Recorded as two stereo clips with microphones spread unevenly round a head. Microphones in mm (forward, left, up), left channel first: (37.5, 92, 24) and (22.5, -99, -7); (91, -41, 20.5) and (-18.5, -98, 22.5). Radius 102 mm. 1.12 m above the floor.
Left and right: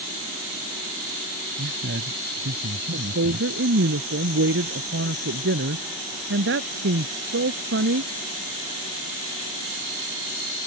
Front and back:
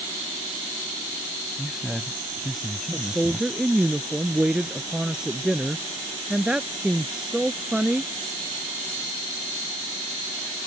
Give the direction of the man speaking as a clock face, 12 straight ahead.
2 o'clock.